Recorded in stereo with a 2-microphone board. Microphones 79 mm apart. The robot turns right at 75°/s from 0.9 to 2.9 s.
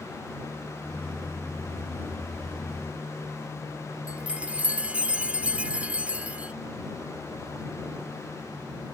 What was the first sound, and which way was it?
A chime, 15° right (ahead or behind).